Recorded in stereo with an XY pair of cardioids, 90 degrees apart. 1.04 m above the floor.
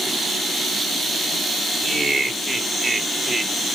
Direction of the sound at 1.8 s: 30° right.